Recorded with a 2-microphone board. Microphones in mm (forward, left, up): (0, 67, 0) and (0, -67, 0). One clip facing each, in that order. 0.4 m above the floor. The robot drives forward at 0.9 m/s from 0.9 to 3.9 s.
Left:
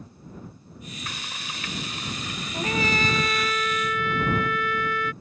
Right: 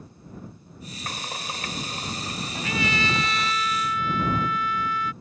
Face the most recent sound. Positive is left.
turn(degrees=70)  # may be behind; listen again after turning